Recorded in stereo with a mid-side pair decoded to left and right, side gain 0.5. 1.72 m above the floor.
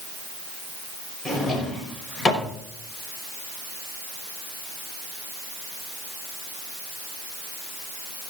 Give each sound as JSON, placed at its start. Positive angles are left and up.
{"t": 1.2, "sound": "a drawer", "azimuth_deg": 45, "distance_m": 5.0}